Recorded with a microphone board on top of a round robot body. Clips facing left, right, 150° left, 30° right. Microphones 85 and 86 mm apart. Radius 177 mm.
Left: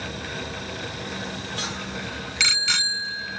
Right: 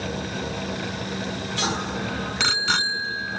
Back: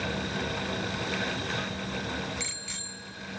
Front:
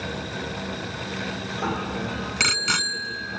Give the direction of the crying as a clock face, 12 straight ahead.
I don't hear crying.